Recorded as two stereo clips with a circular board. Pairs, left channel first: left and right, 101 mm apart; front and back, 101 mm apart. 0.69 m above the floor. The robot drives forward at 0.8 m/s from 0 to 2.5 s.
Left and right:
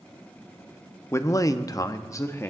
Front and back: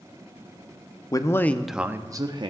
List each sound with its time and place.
1.1 s a man speaking: 35° left, 0.8 m; by 2.5 s 155° left, 0.9 m